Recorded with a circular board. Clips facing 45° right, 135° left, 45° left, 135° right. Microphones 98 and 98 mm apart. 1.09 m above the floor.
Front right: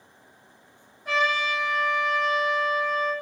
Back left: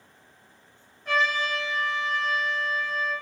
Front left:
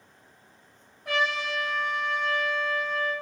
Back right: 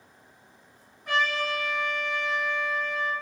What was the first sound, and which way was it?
A trumpet, 30° left.